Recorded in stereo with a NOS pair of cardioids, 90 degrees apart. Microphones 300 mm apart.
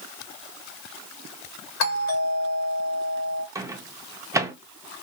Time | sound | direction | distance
1.8 | a doorbell | 65° left | 1.5 m
3.5 | a microwave | 10° right | 0.5 m